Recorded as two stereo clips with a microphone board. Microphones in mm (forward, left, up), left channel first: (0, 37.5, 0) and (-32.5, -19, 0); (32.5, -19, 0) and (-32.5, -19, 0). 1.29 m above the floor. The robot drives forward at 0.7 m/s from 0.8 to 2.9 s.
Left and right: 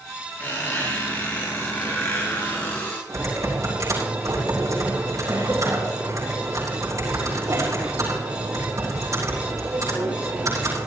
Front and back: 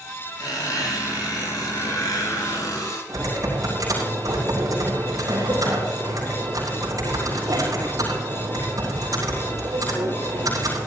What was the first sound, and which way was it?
A squeak, 5° right.